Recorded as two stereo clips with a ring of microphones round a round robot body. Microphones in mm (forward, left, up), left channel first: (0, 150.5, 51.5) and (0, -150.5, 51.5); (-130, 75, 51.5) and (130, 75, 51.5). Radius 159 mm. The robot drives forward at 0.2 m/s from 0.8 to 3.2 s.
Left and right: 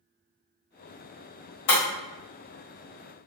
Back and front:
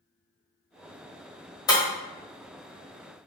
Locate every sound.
1.7 s breaking glass: 110° left, 1.4 m